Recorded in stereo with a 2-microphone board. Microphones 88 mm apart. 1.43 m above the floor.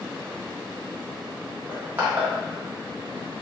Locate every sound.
1.7 s crushing: 20° right (ahead or behind), 0.8 m